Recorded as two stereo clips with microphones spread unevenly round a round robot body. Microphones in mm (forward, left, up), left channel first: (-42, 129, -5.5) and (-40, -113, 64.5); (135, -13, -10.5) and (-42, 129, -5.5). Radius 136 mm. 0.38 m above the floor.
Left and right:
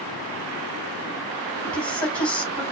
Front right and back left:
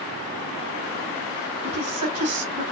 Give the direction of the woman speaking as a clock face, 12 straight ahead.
7 o'clock.